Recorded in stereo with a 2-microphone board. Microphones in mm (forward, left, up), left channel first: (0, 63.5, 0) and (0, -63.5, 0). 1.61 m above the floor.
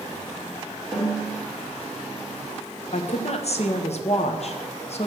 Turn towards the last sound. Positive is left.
turn(degrees=55)  # may be behind; listen again after turning